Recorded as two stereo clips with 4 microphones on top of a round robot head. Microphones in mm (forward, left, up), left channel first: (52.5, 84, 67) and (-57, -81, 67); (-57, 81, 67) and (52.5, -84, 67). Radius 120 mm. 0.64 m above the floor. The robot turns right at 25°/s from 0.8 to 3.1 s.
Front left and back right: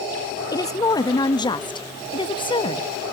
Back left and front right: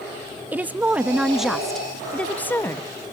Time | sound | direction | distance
0.5 | a woman speaking | 15° left | 0.6 m